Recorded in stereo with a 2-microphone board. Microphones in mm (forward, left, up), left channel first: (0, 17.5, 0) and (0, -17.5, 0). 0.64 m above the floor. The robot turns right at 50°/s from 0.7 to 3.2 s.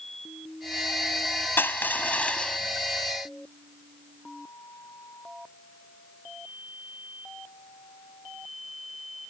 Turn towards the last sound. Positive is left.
turn(degrees=-170)